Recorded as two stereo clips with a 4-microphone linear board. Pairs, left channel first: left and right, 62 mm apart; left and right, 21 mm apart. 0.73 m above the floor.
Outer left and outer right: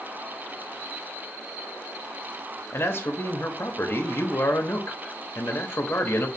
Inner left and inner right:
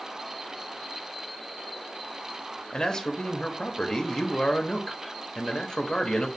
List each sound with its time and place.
2.7 s a man speaking: 45° left (ahead or behind), 0.9 m